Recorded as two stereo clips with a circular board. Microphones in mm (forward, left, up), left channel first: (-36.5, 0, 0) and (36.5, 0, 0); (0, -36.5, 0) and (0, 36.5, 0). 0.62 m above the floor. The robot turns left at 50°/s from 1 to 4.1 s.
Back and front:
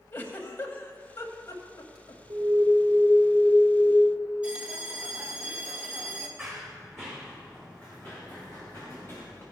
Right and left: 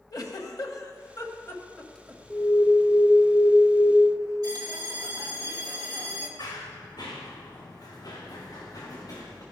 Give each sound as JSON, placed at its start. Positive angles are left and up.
{"t": 0.1, "sound": "a giggle", "azimuth_deg": -120, "distance_m": 1.1}
{"t": 2.3, "sound": "an alarm", "azimuth_deg": -15, "distance_m": 1.6}
{"t": 4.4, "sound": "a bell", "azimuth_deg": 70, "distance_m": 1.1}
{"t": 6.4, "sound": "running footsteps", "azimuth_deg": -90, "distance_m": 2.0}